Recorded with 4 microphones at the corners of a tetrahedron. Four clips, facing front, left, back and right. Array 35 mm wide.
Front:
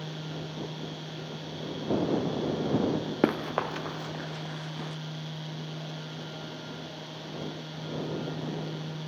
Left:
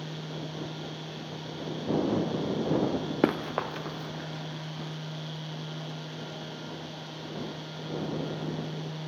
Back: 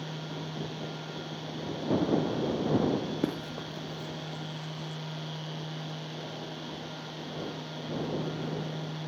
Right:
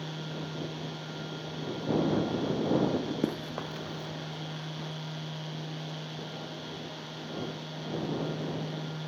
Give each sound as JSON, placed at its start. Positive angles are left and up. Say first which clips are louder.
{"t": 3.2, "sound": "running footsteps", "louder": "left 6 dB, front 6 dB", "azimuth_deg": 50}